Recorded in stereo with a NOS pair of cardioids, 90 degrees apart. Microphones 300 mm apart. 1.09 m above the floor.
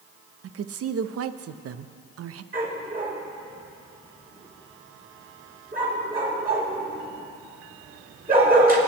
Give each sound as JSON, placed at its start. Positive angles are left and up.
{"t": 0.4, "sound": "a woman speaking", "azimuth_deg": -50, "distance_m": 0.7}
{"t": 2.5, "sound": "a dog barking", "azimuth_deg": -30, "distance_m": 4.0}